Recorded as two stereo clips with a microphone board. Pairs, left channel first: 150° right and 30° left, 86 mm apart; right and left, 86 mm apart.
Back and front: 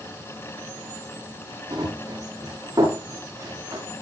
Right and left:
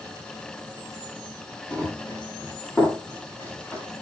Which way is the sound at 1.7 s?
15° right.